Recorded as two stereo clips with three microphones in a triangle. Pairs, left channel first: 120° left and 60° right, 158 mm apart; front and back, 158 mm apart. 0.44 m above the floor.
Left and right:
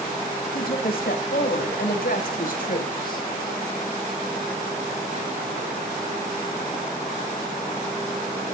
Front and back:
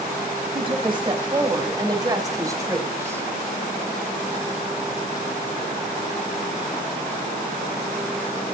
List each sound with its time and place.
0.5 s a woman speaking: 125° left, 4 m; by 3.3 s 105° left, 3 m